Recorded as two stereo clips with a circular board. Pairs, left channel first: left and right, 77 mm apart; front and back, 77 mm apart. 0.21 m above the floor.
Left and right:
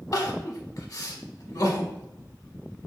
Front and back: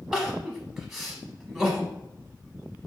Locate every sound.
0.1 s crying: 100° left, 0.7 m